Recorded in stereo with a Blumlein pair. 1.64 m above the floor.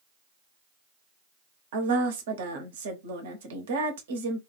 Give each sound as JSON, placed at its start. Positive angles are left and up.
{"t": 1.7, "sound": "a woman speaking", "azimuth_deg": -55, "distance_m": 0.8}